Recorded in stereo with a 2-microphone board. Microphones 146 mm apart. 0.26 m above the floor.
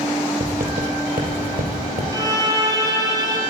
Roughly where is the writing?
Right.